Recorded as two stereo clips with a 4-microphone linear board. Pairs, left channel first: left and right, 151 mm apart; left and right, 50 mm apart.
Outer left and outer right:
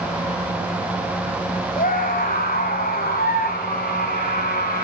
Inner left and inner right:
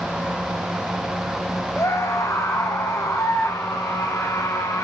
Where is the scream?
65° left (ahead or behind), 7.5 m; by 4.8 s 75° left (ahead or behind), 12 m.